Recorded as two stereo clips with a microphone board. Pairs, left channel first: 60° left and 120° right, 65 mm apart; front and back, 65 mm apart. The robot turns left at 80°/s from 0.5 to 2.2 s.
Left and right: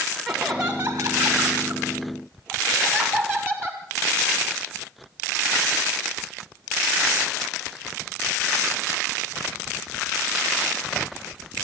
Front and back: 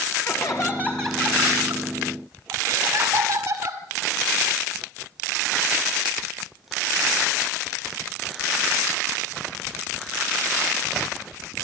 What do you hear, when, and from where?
0.2 s laughter: 40° right, 1.9 m; by 3.8 s 175° right, 1.9 m